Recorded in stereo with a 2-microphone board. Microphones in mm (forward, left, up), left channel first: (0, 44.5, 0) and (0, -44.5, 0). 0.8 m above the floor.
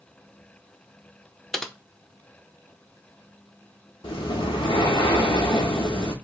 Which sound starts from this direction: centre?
Typing on a keyboard, at 1.5 s.